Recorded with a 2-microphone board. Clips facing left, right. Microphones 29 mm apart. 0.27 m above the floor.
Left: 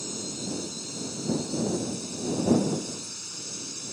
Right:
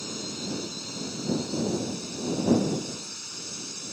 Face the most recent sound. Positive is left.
turn(degrees=-5)  # may be behind; listen again after turning